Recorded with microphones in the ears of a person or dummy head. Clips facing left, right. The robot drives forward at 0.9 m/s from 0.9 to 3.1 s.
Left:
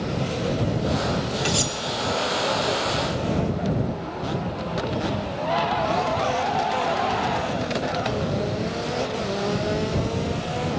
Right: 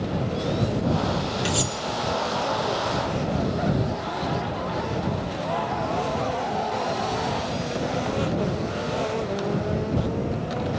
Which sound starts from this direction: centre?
Cutlery clinking, at 1.4 s.